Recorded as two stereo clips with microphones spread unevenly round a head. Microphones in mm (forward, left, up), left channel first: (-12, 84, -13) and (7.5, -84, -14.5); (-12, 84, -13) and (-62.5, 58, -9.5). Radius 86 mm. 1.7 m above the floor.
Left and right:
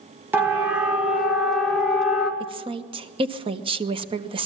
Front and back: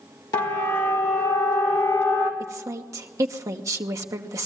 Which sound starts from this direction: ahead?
A siren, at 0.3 s.